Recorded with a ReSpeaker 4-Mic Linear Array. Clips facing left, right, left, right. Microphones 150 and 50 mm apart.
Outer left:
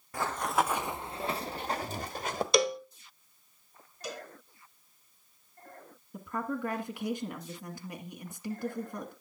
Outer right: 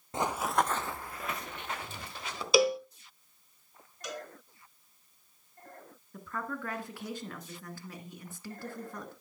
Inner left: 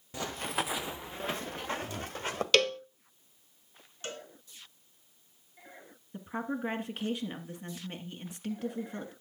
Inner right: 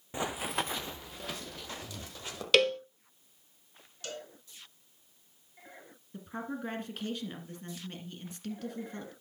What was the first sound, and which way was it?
Running footsteps, 25° right (ahead or behind).